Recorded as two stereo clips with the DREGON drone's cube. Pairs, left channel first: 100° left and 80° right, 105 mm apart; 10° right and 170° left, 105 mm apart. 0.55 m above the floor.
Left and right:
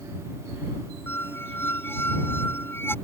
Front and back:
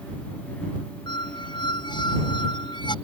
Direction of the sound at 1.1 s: 30° left.